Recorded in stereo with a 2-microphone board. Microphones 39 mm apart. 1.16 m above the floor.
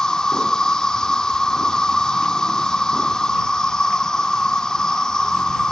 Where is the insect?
20° left (ahead or behind).